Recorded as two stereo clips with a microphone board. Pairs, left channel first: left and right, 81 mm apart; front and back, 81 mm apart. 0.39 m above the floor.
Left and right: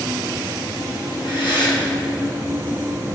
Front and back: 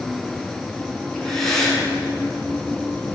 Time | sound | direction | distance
1.1 | breathing | 80° left | 3.5 m